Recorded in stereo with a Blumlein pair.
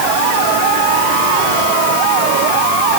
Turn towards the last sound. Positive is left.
No sound to turn to.